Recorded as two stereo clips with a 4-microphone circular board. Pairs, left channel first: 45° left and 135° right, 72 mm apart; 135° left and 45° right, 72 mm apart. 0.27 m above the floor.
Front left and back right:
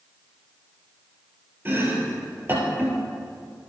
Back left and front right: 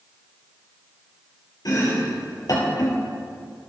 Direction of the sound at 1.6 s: 165° left.